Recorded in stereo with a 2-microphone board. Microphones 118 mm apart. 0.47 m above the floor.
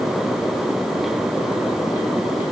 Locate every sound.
Only background noise.